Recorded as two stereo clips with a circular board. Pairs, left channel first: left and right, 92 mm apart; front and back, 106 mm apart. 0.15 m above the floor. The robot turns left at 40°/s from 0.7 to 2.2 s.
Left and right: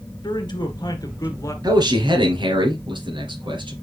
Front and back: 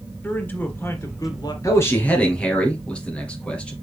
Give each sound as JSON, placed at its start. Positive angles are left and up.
{"t": 0.2, "sound": "a man speaking", "azimuth_deg": 70, "distance_m": 2.0}
{"t": 1.6, "sound": "a man speaking", "azimuth_deg": -55, "distance_m": 3.0}